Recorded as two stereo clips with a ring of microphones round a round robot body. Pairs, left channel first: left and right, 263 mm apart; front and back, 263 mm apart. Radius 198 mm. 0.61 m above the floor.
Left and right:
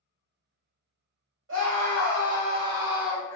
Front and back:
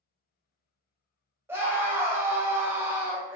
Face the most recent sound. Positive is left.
turn(degrees=125)